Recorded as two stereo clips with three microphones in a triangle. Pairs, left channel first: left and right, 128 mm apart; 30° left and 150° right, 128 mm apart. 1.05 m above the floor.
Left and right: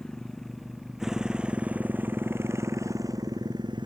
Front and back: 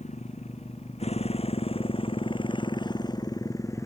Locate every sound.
0.0 s a motorcycle: 5° left; by 3.9 s 35° right